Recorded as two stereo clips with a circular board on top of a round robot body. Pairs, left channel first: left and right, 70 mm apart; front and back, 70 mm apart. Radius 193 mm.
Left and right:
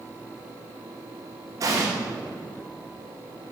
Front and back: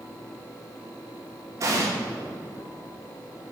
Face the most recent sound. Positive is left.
turn(degrees=-135)